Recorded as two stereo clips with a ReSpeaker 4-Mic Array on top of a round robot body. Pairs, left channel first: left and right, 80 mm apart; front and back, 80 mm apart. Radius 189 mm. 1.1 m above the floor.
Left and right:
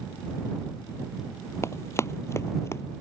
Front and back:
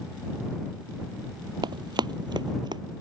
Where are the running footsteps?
150° left.